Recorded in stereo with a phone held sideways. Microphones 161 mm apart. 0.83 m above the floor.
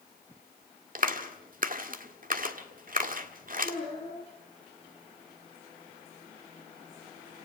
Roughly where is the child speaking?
Centre.